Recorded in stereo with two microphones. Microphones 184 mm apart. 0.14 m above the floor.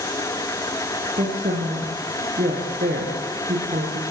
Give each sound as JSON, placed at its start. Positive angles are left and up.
{"t": 1.2, "sound": "a woman speaking", "side_deg": -50, "distance_m": 6.0}